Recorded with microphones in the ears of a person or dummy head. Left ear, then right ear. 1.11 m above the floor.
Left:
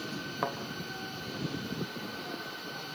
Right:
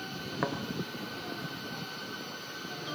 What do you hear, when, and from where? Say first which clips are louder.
0.4 s a thud: even; centre (ahead or behind), 2.5 m